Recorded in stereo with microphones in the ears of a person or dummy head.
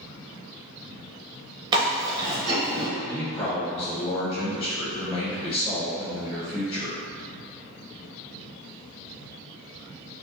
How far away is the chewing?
About 0.7 m.